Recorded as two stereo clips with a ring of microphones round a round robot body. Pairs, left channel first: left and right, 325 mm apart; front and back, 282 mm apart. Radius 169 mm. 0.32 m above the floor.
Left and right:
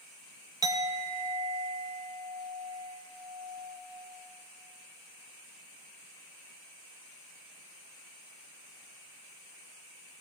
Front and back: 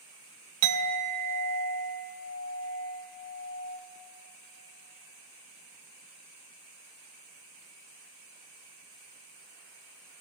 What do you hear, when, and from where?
0.6 s a clink: 170° right, 0.7 m